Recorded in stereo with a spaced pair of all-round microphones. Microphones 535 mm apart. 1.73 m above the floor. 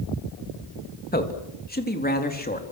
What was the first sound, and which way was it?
A man speaking, 15° left (ahead or behind).